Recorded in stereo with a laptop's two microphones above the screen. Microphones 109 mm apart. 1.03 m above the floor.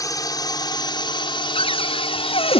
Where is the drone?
35° left (ahead or behind); by 2.6 s 65° left (ahead or behind).